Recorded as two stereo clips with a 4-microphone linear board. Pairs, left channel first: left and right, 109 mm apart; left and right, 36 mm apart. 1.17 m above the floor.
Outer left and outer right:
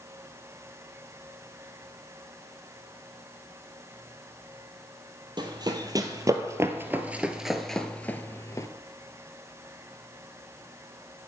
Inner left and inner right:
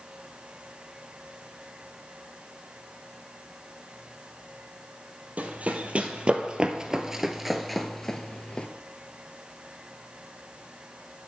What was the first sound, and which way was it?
Running footsteps, 40° right (ahead or behind).